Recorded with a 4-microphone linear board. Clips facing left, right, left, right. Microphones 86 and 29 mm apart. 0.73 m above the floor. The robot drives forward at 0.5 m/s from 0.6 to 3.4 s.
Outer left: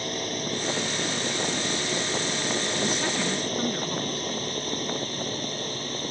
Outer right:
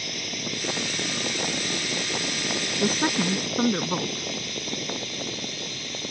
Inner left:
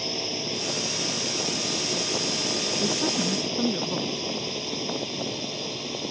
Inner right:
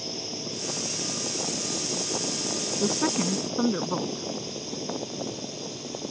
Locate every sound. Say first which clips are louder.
0.0 s a drone: outer left 4 dB, inner left 5 dB; 40° left (ahead or behind)
2.8 s a woman speaking: outer right 3 dB, inner right 2 dB; 40° right (ahead or behind)